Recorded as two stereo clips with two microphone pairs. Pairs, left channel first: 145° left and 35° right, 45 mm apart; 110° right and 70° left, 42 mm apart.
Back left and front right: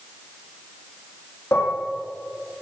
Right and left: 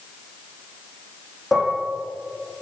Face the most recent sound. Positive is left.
turn(degrees=160)